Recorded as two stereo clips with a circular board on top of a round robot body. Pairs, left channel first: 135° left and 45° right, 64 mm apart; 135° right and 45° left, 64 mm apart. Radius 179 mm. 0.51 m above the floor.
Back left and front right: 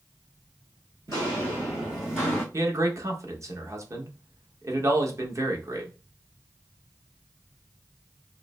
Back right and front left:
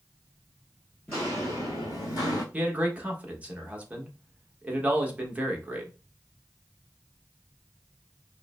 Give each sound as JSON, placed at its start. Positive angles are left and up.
{"t": 1.1, "sound": "footsteps", "azimuth_deg": -65, "distance_m": 0.6}
{"t": 2.5, "sound": "a man speaking", "azimuth_deg": -20, "distance_m": 1.1}